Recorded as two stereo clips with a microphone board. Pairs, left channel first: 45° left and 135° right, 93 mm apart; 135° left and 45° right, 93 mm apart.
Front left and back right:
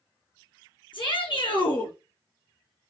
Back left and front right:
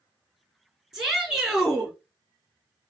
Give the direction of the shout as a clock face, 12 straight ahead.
11 o'clock.